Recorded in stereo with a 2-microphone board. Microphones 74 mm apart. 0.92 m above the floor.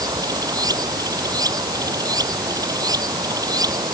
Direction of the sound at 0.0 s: 55° right (ahead or behind).